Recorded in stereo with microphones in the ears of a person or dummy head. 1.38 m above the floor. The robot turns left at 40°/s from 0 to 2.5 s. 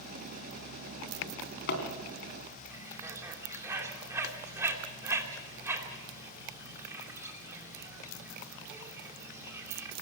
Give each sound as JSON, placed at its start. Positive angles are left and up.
{"t": 1.2, "sound": "a drawer", "side_deg": 70, "distance_m": 3.0}
{"t": 2.7, "sound": "a bird", "side_deg": -15, "distance_m": 2.5}